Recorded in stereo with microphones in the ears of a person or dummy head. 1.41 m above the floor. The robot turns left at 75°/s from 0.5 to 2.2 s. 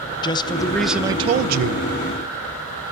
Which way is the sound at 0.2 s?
20° left.